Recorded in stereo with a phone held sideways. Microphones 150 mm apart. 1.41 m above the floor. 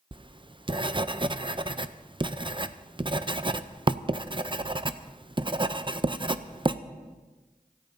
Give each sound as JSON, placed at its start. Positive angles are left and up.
{"t": 0.1, "sound": "writing", "side_deg": -30, "distance_m": 0.5}